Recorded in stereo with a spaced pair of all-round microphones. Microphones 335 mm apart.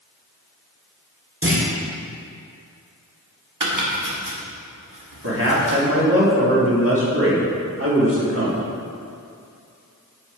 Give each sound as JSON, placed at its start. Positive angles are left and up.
{"t": 1.4, "sound": "a clunk", "side_deg": -40, "distance_m": 1.7}
{"t": 3.6, "sound": "chopping", "side_deg": -65, "distance_m": 1.5}
{"t": 5.2, "sound": "a man speaking", "side_deg": -40, "distance_m": 1.9}